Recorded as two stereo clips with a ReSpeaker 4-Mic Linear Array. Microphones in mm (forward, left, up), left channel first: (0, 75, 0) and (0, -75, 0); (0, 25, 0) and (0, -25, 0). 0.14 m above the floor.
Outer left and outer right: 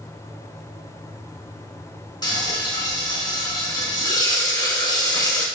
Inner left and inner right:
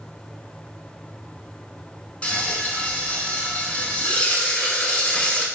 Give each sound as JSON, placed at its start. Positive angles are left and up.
{"t": 2.2, "sound": "frying", "side_deg": 30, "distance_m": 0.8}